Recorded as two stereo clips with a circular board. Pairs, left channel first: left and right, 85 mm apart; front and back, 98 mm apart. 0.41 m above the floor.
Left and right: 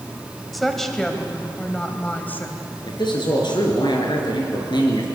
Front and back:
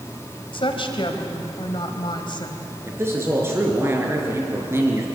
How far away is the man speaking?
About 5 m.